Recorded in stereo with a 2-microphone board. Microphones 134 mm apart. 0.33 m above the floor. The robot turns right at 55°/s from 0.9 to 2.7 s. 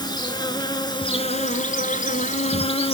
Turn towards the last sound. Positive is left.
turn(degrees=135)